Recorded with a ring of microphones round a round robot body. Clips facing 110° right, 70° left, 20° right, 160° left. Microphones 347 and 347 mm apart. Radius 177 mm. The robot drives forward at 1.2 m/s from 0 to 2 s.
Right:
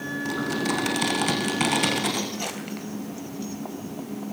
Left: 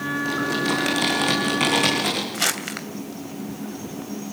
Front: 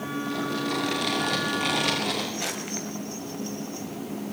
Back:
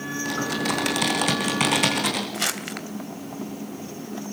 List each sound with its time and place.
0.2 s typing on a keyboard: 170° left, 6.5 m
2.3 s crumpling: 110° left, 2.5 m